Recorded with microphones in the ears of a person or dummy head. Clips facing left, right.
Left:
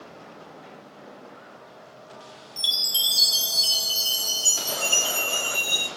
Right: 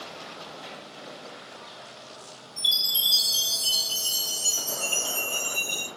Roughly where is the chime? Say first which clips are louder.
Left 2 dB; left.